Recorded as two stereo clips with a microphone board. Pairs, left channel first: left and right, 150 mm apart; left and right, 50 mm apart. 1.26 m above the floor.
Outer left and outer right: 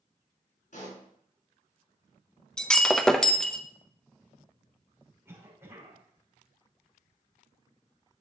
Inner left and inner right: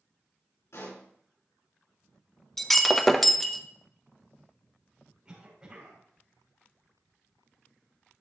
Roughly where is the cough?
Centre.